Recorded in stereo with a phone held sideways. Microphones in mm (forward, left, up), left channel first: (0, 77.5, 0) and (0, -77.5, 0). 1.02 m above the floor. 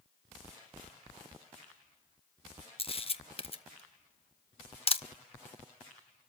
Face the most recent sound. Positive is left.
turn(degrees=40)  # may be behind; listen again after turning